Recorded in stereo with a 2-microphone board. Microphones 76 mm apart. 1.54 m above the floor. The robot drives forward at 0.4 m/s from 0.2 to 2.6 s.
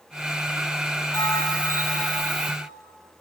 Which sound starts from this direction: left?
A bell, at 1.1 s.